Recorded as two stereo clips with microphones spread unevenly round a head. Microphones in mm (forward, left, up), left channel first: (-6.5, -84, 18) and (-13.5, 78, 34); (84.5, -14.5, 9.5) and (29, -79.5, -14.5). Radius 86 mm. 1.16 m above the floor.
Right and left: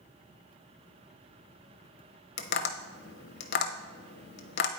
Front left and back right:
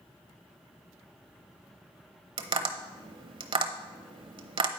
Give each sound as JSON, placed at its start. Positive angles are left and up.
{"t": 2.4, "sound": "tapping", "azimuth_deg": -115, "distance_m": 0.8}